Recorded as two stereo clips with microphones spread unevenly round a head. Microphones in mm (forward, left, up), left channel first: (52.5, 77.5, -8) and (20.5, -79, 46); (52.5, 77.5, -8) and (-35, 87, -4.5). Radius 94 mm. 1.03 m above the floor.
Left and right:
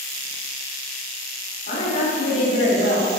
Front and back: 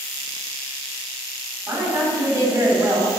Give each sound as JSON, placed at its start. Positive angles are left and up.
{"t": 1.7, "sound": "a woman speaking", "azimuth_deg": 125, "distance_m": 3.0}